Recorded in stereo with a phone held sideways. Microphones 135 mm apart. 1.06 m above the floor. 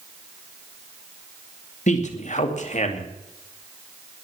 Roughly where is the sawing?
No sawing in this recording.